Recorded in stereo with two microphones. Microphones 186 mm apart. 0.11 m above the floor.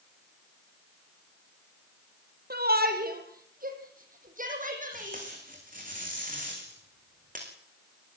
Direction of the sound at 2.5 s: 60° right (ahead or behind).